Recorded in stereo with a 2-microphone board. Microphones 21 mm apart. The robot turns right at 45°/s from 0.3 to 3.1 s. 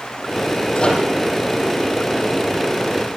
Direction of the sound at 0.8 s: 30° left (ahead or behind).